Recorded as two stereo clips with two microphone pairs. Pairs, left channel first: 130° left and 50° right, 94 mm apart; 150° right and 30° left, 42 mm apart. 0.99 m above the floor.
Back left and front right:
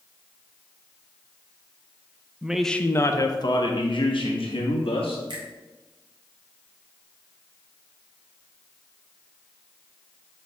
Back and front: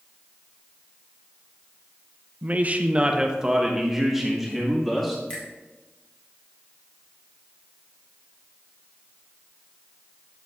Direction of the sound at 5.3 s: 90° right.